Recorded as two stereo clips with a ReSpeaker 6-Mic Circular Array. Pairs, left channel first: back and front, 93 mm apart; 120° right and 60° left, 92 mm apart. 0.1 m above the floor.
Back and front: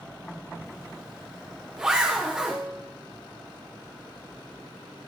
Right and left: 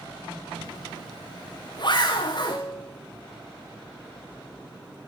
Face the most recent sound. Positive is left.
turn(degrees=-70)